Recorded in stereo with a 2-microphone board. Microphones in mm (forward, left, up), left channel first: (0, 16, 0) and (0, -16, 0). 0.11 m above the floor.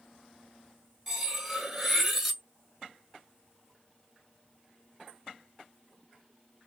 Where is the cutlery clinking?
5° right (ahead or behind), 0.9 m.